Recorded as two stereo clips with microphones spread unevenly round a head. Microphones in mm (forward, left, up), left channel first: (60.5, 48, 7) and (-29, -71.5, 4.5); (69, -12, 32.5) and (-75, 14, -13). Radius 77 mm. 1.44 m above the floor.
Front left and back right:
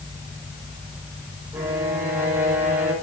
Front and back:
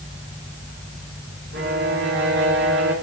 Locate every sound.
1.5 s a violin: 155° left, 3 m